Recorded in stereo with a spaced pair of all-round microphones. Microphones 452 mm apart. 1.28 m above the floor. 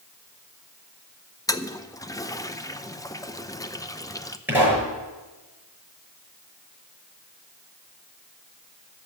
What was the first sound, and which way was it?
A toilet flushing, 10° left (ahead or behind).